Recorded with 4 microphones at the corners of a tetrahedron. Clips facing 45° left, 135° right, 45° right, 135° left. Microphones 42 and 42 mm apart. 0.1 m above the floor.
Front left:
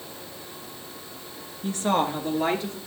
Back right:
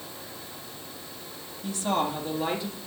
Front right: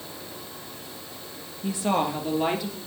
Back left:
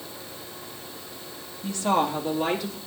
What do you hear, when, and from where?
1.6 s a woman speaking: 20° left, 1.4 m; by 2.8 s 40° left, 1.8 m